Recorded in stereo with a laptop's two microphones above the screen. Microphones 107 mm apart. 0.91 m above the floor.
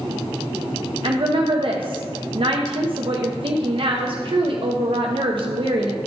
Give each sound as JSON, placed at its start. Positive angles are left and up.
{"t": 1.0, "sound": "a woman speaking", "side_deg": -55, "distance_m": 0.7}